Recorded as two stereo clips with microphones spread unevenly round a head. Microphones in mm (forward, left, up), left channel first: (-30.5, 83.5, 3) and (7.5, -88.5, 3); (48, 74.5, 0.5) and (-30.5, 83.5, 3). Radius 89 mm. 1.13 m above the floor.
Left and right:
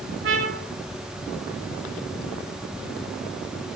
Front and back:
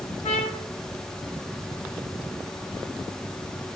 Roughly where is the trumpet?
Ahead right.